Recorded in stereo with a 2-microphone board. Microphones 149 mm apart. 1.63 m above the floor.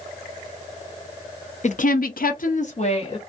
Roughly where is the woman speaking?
Left.